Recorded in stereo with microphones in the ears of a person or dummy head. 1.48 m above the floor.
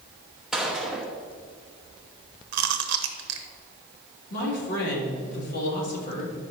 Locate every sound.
0.5 s a gunshot: centre (ahead or behind), 0.8 m
2.5 s chewing: 65° right (ahead or behind), 0.8 m
4.3 s a man speaking: 55° left (ahead or behind), 3.5 m